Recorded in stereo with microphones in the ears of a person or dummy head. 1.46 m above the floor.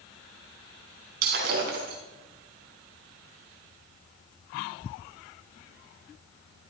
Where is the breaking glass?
60° right (ahead or behind), 4.5 m.